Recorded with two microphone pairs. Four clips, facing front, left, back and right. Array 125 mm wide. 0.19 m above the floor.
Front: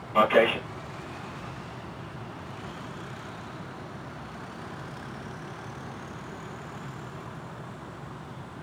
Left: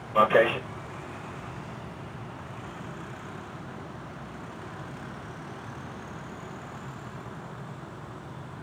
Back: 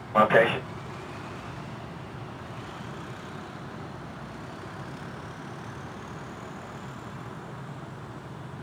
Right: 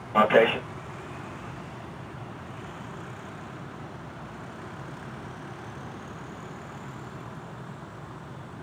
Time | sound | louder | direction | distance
0.1 | a man speaking | right 1 dB, back 1 dB | 145° right | 2.5 m